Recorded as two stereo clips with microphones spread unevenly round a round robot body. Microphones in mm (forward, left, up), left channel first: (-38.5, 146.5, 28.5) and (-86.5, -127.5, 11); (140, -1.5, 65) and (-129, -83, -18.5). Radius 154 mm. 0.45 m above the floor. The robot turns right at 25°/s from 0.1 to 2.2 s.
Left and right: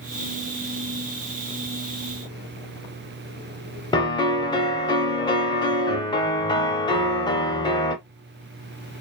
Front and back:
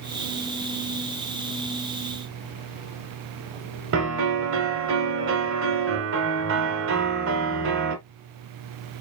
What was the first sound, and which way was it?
A piano, 155° left.